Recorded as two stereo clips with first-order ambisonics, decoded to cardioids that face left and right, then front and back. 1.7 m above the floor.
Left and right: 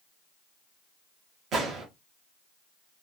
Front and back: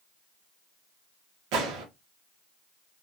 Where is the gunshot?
150° right, 0.9 m.